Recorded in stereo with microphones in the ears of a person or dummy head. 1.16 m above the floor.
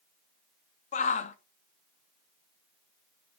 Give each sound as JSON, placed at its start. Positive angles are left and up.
{"t": 0.9, "sound": "a shout", "side_deg": 35, "distance_m": 0.6}